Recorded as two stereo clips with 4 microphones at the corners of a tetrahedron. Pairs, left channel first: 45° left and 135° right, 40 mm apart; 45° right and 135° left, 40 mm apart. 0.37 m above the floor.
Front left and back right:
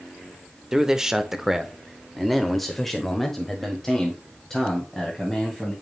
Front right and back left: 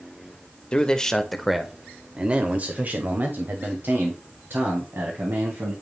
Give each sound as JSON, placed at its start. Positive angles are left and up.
{"t": 0.7, "sound": "a man speaking", "azimuth_deg": -75, "distance_m": 0.9}